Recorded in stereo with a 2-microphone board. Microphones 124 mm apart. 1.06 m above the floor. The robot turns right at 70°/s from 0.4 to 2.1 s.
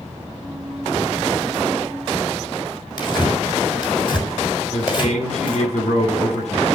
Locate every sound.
3.0 s tearing paper: 40° left (ahead or behind), 5.5 m
4.7 s a man speaking: 65° left (ahead or behind), 9 m